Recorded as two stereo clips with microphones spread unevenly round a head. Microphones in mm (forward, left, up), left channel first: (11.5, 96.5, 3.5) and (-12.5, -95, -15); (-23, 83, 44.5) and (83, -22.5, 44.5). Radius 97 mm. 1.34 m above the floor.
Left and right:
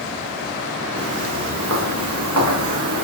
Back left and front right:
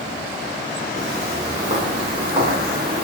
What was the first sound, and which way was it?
Footsteps, 115° right.